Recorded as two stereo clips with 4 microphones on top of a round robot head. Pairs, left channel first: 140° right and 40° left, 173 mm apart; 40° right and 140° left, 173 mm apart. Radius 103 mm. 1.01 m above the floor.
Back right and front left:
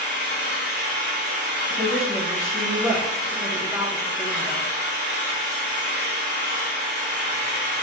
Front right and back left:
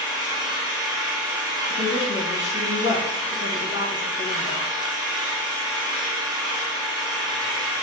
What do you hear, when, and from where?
0.0 s an engine running: 70° left, 1.5 m
1.7 s a woman speaking: 35° right, 1.2 m